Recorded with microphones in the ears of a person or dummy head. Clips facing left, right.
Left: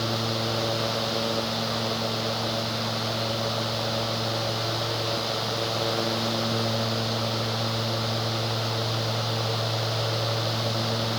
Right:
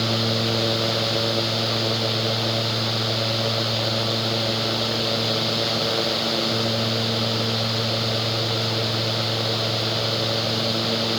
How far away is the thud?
No thud in this recording.